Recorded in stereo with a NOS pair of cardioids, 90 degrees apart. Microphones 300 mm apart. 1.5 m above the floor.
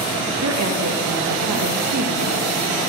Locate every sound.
0.4 s a woman speaking: 60° right, 1.7 m